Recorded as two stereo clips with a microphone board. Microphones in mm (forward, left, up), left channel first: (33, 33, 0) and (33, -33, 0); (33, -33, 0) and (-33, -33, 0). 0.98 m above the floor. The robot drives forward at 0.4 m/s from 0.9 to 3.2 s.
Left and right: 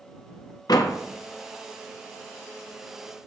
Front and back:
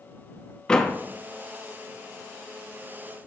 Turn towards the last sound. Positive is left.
turn(degrees=135)